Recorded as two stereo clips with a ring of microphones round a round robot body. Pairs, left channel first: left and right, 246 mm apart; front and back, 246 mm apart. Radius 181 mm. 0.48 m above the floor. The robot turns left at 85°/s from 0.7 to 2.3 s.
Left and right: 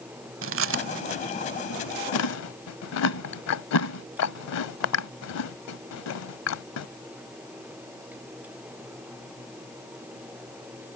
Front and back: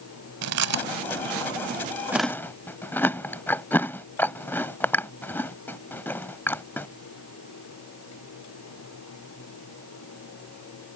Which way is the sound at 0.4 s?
140° right.